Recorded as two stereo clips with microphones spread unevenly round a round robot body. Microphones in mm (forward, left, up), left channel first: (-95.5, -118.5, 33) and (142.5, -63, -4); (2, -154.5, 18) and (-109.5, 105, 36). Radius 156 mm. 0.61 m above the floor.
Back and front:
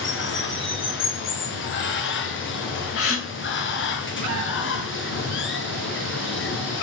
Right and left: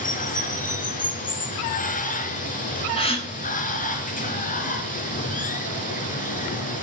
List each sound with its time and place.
0.0 s running water: 130° right, 3.5 m
3.0 s a gasp: 135° right, 6.5 m